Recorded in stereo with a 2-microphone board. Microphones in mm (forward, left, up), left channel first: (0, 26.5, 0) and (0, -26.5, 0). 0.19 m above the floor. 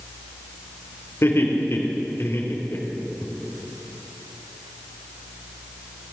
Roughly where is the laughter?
Left.